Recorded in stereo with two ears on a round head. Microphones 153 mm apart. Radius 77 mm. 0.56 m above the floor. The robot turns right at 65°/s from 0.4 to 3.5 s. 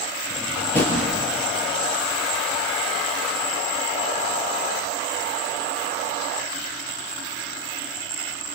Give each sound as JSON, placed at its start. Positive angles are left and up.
{"t": 0.3, "sound": "a drawer", "side_deg": -10, "distance_m": 5.0}